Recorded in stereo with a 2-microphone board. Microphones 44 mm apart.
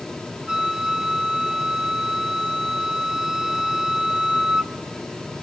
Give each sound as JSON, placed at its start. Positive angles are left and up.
{"t": 0.5, "sound": "a flute", "side_deg": -15, "distance_m": 0.8}